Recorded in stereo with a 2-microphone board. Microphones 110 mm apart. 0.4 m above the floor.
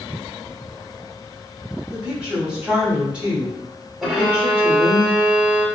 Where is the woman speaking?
10° right (ahead or behind), 1.2 m.